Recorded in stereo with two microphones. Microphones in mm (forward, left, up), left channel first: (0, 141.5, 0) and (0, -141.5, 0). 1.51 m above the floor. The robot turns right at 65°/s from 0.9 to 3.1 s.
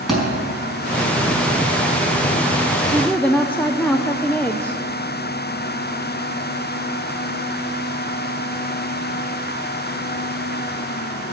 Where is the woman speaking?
5° right (ahead or behind), 0.6 m; by 4.8 s 5° left (ahead or behind), 0.6 m.